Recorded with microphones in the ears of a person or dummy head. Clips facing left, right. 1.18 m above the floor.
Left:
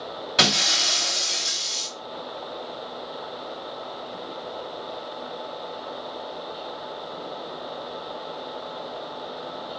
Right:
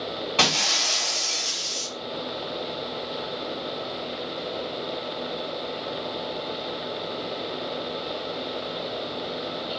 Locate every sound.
0.4 s breaking glass: 20° left (ahead or behind), 2 m